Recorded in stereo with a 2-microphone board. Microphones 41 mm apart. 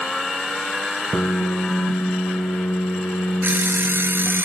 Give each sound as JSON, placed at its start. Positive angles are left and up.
{"t": 1.1, "sound": "a piano", "side_deg": 65, "distance_m": 1.1}
{"t": 3.4, "sound": "an alarm clock", "side_deg": -55, "distance_m": 2.0}